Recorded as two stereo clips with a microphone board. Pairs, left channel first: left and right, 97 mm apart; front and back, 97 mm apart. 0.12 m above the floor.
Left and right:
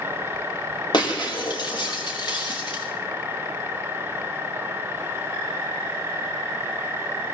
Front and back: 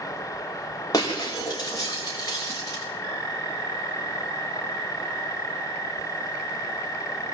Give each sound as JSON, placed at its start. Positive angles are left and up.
{"t": 0.9, "sound": "breaking glass", "azimuth_deg": 50, "distance_m": 7.0}